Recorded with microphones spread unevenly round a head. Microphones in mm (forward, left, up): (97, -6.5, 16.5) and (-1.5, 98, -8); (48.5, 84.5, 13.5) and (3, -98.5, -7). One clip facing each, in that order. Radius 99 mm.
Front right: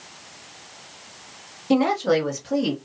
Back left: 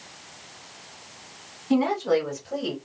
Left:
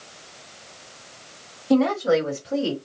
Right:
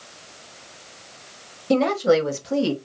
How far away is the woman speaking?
About 0.9 m.